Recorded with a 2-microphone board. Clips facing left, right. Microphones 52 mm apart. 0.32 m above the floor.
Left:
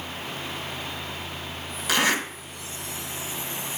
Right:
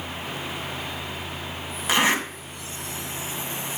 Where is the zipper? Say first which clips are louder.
Right 2 dB; 25° right (ahead or behind), 2 m.